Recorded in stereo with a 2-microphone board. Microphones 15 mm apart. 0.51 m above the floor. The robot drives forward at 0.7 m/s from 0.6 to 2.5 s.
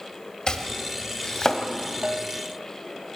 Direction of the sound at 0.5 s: 45° left (ahead or behind).